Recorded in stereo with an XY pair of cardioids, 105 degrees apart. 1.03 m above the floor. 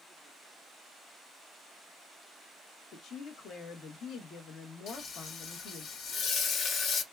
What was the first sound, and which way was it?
A woman speaking, 70° left.